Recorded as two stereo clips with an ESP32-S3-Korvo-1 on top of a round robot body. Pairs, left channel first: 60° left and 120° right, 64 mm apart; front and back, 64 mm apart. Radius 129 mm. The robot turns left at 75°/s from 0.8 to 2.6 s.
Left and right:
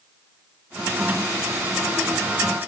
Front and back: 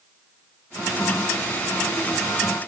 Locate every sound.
Only background noise.